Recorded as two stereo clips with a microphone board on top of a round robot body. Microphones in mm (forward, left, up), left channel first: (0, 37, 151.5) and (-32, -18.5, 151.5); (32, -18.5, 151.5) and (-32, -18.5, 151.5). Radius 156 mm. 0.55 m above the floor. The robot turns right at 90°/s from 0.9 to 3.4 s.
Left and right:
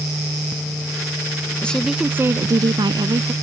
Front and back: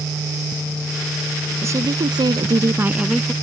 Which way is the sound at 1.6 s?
130° left.